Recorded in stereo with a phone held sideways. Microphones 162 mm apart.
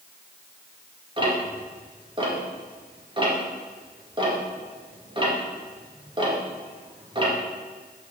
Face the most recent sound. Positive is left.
turn(degrees=-30)  # may be behind; listen again after turning